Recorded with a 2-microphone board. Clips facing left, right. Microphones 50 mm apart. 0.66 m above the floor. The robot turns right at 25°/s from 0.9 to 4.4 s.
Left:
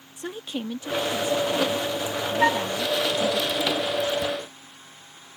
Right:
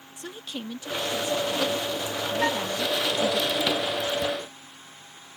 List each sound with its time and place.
0.2 s a woman speaking: 135° left; by 3.4 s 165° right
2.4 s a flute: 30° left (ahead or behind); by 2.7 s 25° left (ahead or behind)